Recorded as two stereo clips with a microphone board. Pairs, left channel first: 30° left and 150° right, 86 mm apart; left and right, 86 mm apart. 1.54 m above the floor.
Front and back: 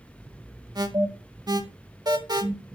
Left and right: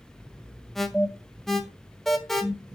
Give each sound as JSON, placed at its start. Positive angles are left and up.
{"t": 0.8, "sound": "an alarm", "azimuth_deg": 175, "distance_m": 1.8}